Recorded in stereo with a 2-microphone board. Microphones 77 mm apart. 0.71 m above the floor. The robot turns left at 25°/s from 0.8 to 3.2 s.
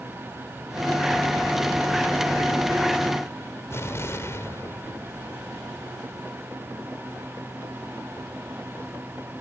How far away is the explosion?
About 3 m.